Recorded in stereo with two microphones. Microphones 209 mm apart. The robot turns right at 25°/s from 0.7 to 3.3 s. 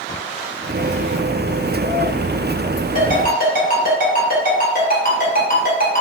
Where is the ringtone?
35° left (ahead or behind), 1.3 m; by 6.0 s 40° left (ahead or behind), 1.3 m.